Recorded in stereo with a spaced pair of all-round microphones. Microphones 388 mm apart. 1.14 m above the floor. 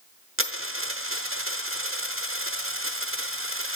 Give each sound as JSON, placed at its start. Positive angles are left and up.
{"t": 0.4, "sound": "a dropped coin", "side_deg": -35, "distance_m": 0.9}